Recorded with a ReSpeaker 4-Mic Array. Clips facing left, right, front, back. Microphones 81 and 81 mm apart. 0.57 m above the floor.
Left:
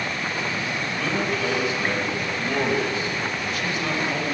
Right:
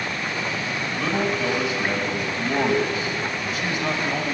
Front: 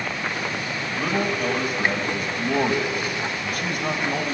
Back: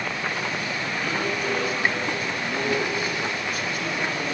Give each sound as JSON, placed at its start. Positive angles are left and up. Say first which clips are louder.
{"t": 1.0, "sound": "a man speaking", "louder": "right 2 dB, front 5 dB", "azimuth_deg": -15, "distance_m": 3.0}